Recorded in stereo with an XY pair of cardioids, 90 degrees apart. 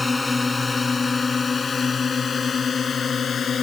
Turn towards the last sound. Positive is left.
turn(degrees=50)